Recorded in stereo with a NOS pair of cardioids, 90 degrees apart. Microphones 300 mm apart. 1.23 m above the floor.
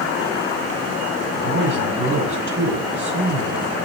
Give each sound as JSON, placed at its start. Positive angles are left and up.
{"t": 1.3, "sound": "a man speaking", "azimuth_deg": -45, "distance_m": 8.5}